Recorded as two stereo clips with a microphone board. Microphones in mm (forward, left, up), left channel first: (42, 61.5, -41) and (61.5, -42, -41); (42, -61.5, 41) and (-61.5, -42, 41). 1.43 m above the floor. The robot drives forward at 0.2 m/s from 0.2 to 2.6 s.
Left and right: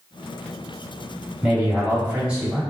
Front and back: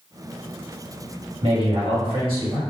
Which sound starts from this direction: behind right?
A man speaking, at 1.4 s.